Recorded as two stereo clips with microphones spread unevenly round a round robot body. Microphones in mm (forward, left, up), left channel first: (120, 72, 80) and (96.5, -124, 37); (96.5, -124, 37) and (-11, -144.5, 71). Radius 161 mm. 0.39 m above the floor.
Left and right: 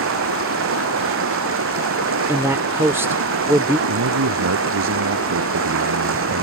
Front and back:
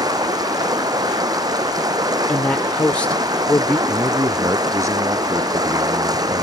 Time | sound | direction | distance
0.0 | running water | 115° right | ?
2.3 | a man speaking | 40° right | ?
3.9 | a man speaking | 110° right | ?